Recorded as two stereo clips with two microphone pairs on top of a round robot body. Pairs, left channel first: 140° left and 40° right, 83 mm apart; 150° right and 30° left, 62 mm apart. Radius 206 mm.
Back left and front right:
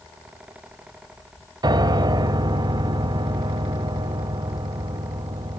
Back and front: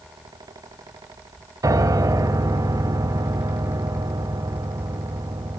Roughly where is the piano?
Ahead.